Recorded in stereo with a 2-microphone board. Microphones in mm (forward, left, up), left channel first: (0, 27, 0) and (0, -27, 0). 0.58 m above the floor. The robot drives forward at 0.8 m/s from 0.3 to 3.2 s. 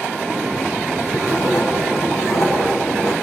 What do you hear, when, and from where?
1.1 s writing: 80° left, 5.5 m; by 3.1 s 65° left (ahead or behind), 6 m